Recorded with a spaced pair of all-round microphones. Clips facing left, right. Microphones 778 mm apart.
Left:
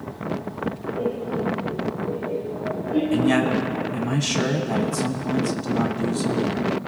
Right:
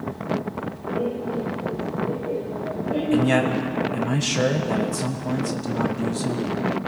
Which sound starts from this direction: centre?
A man speaking, at 3.1 s.